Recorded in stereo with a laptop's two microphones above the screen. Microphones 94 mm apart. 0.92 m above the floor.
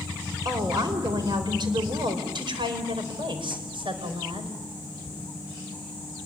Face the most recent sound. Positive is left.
turn(degrees=-80)